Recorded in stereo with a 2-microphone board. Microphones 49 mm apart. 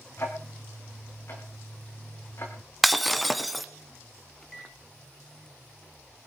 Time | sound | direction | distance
0.2 | ticking | 55° left (ahead or behind) | 3.5 m
2.8 | breaking glass | centre (ahead or behind) | 1.0 m
4.4 | a microwave | 5° left (ahead or behind) | 1.6 m